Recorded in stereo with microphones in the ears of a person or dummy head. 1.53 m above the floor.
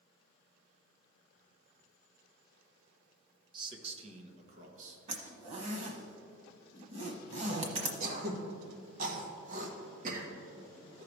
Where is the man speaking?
30° right (ahead or behind), 1.0 m; by 5.0 s 45° right (ahead or behind), 1.7 m.